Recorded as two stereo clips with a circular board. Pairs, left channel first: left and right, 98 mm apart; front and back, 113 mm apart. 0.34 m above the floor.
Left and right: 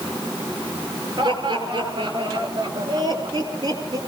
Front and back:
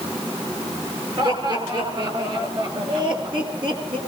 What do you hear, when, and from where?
1.2 s laughter: 130° right, 6.5 m; by 4.0 s 140° right, 4.5 m